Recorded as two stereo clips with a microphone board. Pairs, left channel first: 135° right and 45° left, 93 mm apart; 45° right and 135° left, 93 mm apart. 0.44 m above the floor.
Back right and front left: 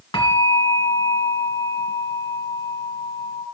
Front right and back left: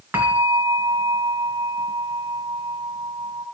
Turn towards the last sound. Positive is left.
turn(degrees=-155)